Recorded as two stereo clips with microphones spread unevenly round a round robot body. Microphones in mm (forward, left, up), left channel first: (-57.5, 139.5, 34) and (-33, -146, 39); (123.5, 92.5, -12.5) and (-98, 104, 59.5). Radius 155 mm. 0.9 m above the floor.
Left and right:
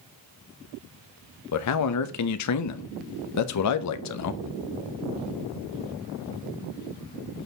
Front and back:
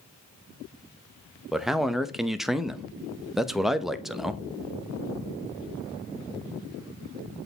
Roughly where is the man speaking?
Left.